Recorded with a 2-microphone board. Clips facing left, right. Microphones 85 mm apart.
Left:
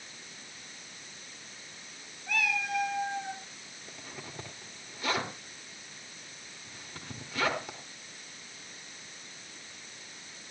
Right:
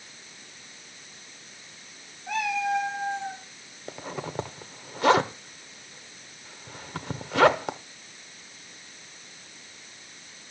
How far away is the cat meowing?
About 5 m.